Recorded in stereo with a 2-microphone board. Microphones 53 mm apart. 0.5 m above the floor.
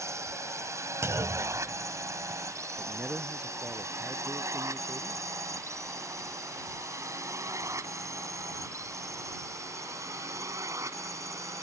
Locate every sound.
0.0 s a drone: 65° right (ahead or behind); by 11.6 s 70° right (ahead or behind)
1.0 s a clunk: 60° right (ahead or behind)
2.8 s a man speaking: 25° right (ahead or behind)